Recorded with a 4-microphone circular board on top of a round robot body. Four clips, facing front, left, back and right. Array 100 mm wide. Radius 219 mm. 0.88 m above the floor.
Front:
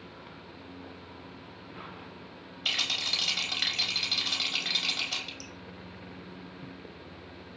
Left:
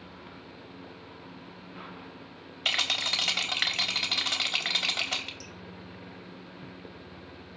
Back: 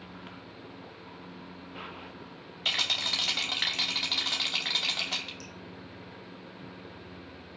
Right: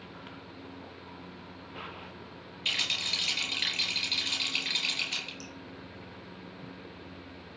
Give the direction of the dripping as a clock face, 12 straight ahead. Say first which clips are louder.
Right 1 dB, even; 4 o'clock.